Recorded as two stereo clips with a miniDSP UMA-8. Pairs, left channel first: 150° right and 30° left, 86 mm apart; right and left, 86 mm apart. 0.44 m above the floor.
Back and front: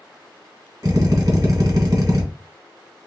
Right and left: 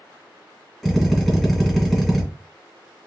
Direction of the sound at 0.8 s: 5° left.